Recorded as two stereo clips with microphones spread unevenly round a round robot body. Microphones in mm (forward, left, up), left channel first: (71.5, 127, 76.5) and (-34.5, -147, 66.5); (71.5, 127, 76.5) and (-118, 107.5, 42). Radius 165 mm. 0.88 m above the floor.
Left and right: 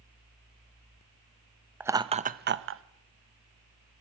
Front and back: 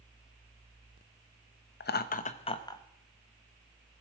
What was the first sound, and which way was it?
Laughter, 30° right.